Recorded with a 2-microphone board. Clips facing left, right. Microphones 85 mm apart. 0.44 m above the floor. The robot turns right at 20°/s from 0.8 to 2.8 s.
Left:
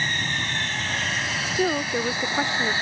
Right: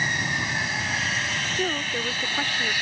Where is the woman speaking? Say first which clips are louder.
Left 4 dB; 20° left (ahead or behind).